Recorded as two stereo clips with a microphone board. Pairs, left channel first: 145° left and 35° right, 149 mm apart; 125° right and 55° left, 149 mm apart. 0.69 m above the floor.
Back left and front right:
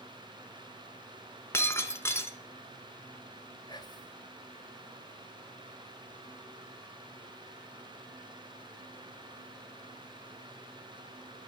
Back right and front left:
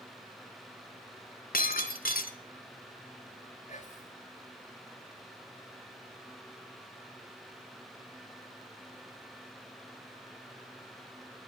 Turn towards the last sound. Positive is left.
turn(degrees=-155)